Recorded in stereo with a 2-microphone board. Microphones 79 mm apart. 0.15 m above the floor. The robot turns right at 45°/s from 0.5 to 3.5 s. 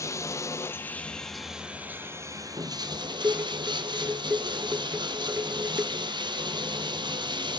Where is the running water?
140° left, 1.5 m; by 7.6 s 85° right, 1.5 m.